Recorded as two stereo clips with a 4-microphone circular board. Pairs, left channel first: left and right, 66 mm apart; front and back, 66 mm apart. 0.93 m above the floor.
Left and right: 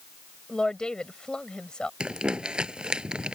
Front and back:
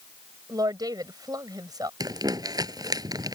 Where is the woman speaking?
170° left.